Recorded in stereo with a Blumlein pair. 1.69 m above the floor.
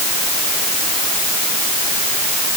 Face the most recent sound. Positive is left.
No sound to turn to.